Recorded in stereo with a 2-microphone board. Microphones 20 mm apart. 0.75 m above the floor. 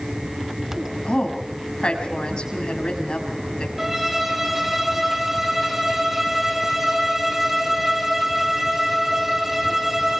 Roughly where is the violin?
Centre.